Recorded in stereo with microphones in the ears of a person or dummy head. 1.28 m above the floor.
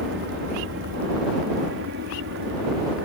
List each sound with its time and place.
0.0 s an aircraft: 60° right (ahead or behind); by 3.1 s 65° right (ahead or behind)